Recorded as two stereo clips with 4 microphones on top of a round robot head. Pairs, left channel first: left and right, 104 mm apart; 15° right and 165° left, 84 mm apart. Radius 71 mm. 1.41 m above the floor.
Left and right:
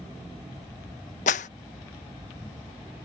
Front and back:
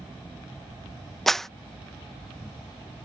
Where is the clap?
75° left.